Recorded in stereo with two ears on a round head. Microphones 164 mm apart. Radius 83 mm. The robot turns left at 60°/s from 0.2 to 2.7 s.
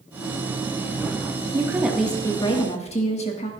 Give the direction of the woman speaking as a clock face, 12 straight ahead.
5 o'clock.